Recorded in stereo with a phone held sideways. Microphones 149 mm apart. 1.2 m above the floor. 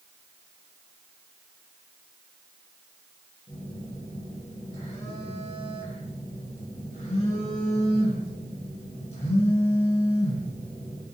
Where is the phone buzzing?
50° left (ahead or behind), 0.9 m.